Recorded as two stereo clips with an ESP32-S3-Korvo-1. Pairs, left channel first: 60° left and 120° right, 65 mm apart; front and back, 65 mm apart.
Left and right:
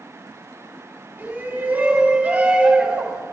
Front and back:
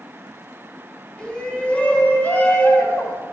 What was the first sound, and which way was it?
A shout, 70° right.